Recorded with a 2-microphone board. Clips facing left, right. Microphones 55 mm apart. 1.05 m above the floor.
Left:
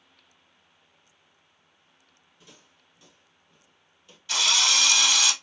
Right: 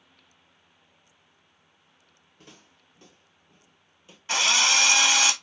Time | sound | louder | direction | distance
2.4 | footsteps | right 3 dB | 55° right (ahead or behind) | 1.8 m
4.3 | a drill | right 2 dB | 35° right (ahead or behind) | 0.8 m